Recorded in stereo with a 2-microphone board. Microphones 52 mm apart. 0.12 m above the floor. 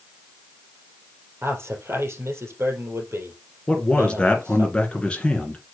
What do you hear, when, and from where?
1.4 s a man speaking: 55° right (ahead or behind), 3 m
3.7 s a man speaking: 20° left (ahead or behind), 1.7 m